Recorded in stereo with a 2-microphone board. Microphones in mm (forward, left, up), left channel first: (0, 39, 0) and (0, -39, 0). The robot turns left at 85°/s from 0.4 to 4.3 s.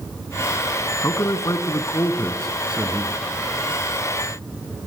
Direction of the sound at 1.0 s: 130° left.